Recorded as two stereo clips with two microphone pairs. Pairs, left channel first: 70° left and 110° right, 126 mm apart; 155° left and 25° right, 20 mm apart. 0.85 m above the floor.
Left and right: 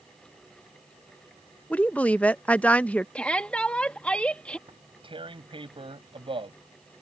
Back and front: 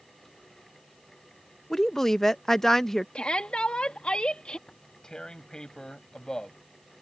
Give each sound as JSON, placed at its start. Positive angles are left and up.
{"t": 1.7, "sound": "a woman speaking", "azimuth_deg": 125}
{"t": 3.1, "sound": "a shout", "azimuth_deg": 150}
{"t": 4.7, "sound": "tearing paper", "azimuth_deg": -155}